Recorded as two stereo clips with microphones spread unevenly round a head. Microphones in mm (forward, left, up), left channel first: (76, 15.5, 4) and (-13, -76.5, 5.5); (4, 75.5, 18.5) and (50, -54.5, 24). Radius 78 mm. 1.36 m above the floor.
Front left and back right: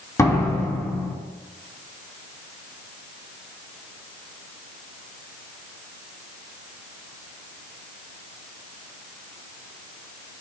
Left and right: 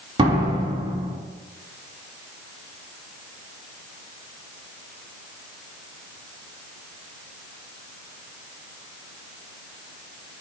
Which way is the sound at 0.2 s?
20° right.